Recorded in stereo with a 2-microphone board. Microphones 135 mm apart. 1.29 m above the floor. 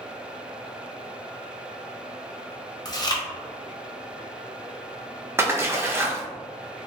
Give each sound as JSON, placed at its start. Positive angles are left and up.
{"t": 2.9, "sound": "chewing", "side_deg": 30, "distance_m": 0.6}
{"t": 5.4, "sound": "a splash", "side_deg": -20, "distance_m": 0.5}